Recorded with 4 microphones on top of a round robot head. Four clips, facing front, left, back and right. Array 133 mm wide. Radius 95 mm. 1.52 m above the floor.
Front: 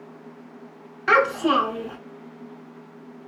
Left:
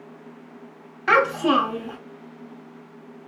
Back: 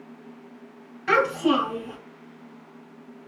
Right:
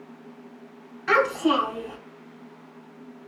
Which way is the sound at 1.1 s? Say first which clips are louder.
Left 2 dB, front 2 dB; 85° left.